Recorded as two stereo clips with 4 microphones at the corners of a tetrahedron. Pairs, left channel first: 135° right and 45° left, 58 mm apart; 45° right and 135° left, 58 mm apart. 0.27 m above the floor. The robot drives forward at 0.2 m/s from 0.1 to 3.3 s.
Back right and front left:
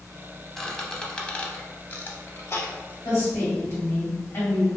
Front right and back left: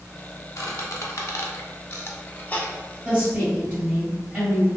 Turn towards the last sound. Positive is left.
turn(degrees=-160)